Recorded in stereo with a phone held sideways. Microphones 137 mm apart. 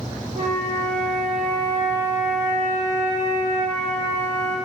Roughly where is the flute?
Right.